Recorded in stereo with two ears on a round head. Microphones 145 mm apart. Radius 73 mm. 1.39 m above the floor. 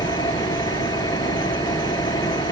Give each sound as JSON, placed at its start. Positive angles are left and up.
{"t": 0.0, "sound": "an engine running", "side_deg": 20}